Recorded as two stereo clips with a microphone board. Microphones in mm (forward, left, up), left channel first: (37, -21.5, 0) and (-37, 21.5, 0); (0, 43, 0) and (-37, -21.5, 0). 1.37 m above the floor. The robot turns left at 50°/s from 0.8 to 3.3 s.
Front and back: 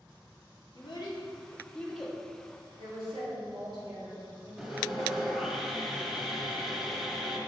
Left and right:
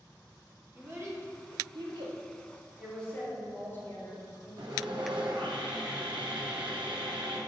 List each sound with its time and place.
0.8 s a child speaking: 60° right, 1.6 m; by 2.2 s 125° right, 1.6 m
2.8 s a woman speaking: 150° left, 2.5 m; by 5.2 s 125° left, 2.5 m
4.6 s sawing: 125° right, 1.1 m